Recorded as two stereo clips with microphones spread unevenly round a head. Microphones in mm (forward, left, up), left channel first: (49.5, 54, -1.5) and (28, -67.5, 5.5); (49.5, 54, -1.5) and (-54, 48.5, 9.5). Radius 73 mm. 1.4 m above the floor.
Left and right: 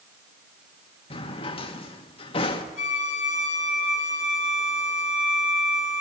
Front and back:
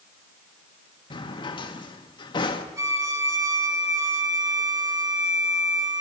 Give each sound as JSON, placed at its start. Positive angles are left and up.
{"t": 1.1, "sound": "a drawer", "azimuth_deg": 40, "distance_m": 1.2}
{"t": 2.8, "sound": "a violin", "azimuth_deg": 125, "distance_m": 2.5}